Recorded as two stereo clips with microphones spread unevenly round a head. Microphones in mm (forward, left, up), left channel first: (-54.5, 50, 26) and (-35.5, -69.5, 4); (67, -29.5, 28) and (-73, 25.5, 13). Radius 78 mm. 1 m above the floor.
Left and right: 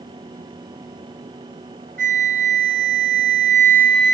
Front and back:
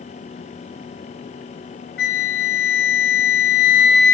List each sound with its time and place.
2.0 s a flute: 35° right, 0.5 m